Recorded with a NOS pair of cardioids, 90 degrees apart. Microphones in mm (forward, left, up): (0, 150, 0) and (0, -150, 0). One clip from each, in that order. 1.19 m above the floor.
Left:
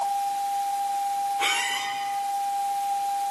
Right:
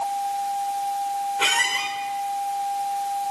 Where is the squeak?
45° right, 2.5 m.